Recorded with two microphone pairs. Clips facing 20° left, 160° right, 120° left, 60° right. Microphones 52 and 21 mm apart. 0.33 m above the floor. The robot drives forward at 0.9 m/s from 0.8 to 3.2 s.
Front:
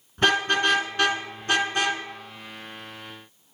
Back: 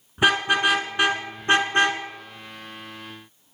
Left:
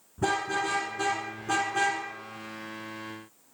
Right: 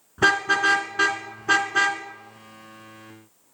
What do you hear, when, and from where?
0.2 s a car horn: 80° right, 2.5 m; by 2.0 s 110° right, 2.5 m